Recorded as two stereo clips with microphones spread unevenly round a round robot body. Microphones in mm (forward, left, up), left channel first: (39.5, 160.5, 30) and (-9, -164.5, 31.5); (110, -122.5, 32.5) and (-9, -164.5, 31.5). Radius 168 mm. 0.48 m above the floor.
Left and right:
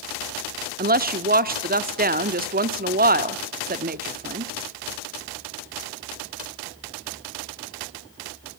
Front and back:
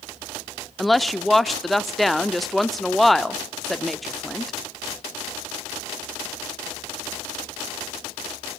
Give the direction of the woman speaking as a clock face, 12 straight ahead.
2 o'clock.